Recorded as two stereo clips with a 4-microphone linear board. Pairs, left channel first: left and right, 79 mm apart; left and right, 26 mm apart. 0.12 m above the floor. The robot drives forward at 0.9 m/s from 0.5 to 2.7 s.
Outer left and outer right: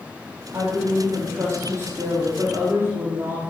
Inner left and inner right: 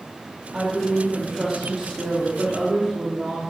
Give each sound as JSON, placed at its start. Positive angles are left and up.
{"t": 0.5, "sound": "a woman speaking", "side_deg": -40, "distance_m": 4.0}